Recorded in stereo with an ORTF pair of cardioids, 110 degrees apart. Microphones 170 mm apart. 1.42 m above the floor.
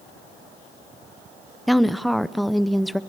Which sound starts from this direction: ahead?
A woman speaking, at 1.7 s.